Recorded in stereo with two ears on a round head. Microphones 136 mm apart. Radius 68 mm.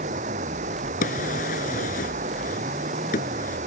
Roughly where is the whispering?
I don't hear whispering.